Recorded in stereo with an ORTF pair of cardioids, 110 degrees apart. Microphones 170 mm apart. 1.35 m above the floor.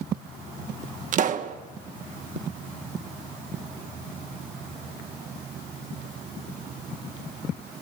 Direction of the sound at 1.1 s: 50° right.